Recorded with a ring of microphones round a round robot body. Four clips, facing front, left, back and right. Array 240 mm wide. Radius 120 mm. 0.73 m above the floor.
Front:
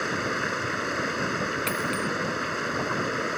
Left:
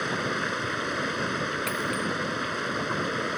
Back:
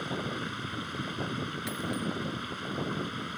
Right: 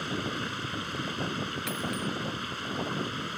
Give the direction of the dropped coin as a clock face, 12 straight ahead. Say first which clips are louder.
Left 4 dB, front 6 dB; 11 o'clock.